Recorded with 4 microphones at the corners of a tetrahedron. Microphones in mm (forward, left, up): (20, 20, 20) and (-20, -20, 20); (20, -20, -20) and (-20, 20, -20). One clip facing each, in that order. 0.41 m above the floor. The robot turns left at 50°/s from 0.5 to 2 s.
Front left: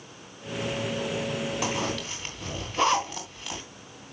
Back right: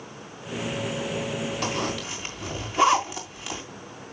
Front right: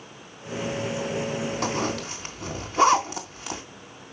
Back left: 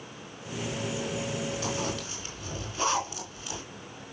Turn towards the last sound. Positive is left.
turn(degrees=-50)